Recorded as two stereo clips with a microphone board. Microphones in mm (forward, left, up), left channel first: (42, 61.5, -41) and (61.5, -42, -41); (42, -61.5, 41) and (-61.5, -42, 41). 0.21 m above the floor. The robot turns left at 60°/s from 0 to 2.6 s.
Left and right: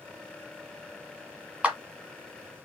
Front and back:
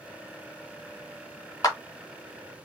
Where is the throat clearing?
I don't hear throat clearing.